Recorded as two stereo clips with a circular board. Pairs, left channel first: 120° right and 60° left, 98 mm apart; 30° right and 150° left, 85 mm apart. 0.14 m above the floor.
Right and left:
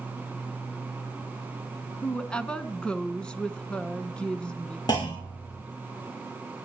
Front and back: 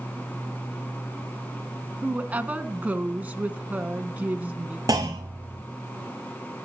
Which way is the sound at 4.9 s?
165° right.